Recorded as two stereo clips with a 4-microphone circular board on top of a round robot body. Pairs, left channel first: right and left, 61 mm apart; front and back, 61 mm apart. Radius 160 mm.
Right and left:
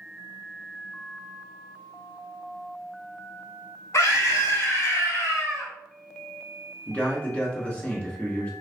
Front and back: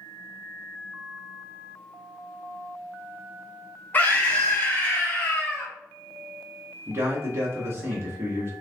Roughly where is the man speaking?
Behind right.